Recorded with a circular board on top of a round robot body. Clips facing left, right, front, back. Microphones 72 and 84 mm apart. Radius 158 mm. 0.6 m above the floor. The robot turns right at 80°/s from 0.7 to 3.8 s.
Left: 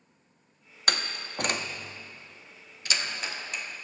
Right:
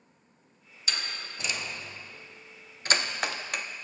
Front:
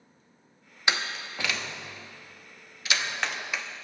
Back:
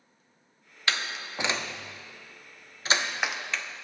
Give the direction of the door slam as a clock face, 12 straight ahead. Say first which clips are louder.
Left 5 dB, front 2 dB; 10 o'clock.